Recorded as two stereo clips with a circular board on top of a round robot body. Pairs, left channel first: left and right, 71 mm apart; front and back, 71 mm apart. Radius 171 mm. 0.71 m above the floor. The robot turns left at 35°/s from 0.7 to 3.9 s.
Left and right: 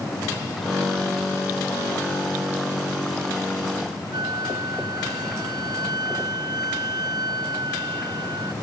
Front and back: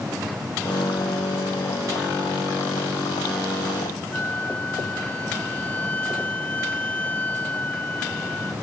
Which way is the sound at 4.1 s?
70° right.